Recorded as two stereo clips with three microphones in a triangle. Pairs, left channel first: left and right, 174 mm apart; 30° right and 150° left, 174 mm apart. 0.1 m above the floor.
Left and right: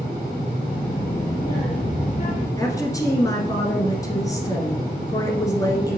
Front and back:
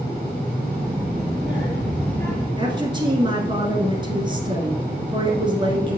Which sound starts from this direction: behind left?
A woman speaking, at 2.6 s.